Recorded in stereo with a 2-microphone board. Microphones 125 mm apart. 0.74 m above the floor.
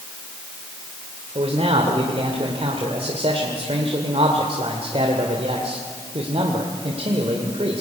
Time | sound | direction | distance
1.4 | a man speaking | 50° right (ahead or behind) | 2 m